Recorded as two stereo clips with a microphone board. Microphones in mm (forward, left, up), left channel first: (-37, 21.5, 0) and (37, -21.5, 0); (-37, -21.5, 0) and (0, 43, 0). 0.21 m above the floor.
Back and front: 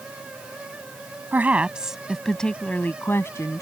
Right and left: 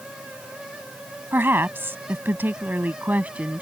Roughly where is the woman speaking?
Ahead.